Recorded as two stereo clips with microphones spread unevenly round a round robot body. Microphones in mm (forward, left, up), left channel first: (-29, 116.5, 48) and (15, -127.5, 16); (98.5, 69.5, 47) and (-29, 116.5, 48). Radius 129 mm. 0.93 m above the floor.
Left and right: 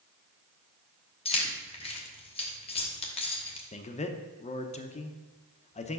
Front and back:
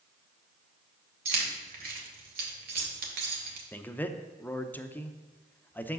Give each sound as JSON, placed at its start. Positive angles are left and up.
{"t": 1.2, "sound": "keys jangling", "azimuth_deg": 170, "distance_m": 1.2}
{"t": 3.7, "sound": "a man speaking", "azimuth_deg": 45, "distance_m": 0.7}